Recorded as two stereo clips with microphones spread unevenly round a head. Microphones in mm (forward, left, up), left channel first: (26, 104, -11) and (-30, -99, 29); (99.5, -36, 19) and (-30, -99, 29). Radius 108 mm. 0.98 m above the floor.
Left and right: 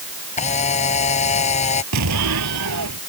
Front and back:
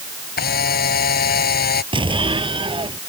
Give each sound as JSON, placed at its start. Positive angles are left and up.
{"t": 0.4, "sound": "a camera shutter", "azimuth_deg": 10}
{"t": 1.9, "sound": "an explosion", "azimuth_deg": -100}